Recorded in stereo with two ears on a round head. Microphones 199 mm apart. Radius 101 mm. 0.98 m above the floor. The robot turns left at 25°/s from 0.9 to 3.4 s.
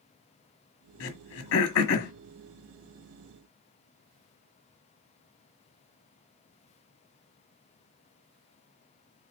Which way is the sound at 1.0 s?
65° left (ahead or behind).